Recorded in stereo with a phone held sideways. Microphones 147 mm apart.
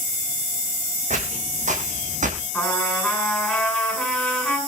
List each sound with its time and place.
1.1 s footsteps: 55° right (ahead or behind), 4.5 m; by 2.4 s 60° right (ahead or behind), 3.5 m
2.5 s a trumpet: centre (ahead or behind), 8 m